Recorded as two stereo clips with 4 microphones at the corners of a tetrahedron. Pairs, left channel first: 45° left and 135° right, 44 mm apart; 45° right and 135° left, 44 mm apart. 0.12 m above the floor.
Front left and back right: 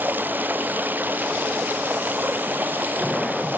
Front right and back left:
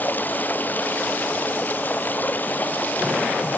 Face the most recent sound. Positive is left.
turn(degrees=-90)